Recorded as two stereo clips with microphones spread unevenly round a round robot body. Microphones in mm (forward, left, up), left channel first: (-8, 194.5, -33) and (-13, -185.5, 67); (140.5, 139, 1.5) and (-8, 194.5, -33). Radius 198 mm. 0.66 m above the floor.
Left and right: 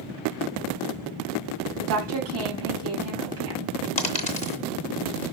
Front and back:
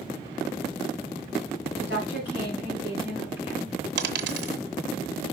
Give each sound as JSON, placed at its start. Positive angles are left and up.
{"t": 1.8, "sound": "a woman speaking", "azimuth_deg": -50, "distance_m": 4.5}
{"t": 4.0, "sound": "a dropped coin", "azimuth_deg": 165, "distance_m": 0.9}